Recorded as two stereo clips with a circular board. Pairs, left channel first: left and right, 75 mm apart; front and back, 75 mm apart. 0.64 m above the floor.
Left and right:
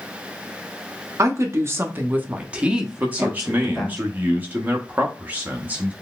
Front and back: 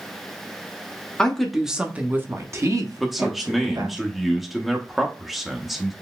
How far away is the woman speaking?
About 0.8 m.